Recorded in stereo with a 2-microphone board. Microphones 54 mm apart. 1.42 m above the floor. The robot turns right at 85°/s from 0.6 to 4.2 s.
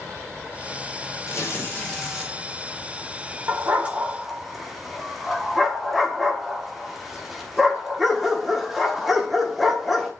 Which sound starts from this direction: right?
A dog barking, at 3.5 s.